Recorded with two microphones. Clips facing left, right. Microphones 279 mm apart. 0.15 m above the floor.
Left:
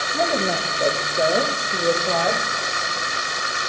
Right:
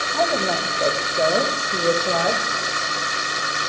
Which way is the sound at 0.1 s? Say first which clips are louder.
Even; 10° left (ahead or behind).